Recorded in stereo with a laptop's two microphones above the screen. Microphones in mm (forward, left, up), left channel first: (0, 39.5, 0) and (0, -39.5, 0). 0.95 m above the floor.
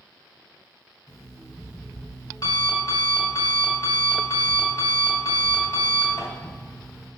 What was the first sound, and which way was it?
An alarm clock, 45° left (ahead or behind).